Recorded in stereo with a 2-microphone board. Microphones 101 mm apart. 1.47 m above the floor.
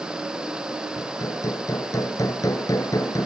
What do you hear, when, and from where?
1.0 s hammering: 35° left (ahead or behind)